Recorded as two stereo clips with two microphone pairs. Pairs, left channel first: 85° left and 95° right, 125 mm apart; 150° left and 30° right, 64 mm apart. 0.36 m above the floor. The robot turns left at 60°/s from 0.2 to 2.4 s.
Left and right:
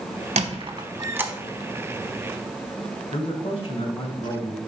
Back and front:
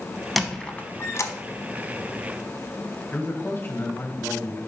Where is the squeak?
120° right, 0.8 m; by 1.3 s straight behind, 0.8 m.